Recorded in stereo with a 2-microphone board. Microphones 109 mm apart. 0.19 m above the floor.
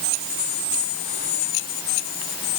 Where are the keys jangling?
I don't hear keys jangling.